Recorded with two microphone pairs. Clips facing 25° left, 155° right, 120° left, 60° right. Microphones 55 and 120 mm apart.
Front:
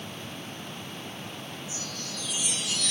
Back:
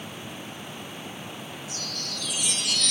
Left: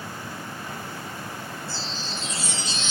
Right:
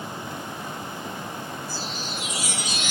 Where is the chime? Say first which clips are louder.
Back 2 dB, right 1 dB; 140° right, 1.6 m.